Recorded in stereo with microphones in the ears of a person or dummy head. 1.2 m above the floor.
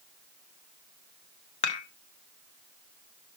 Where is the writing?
I don't hear writing.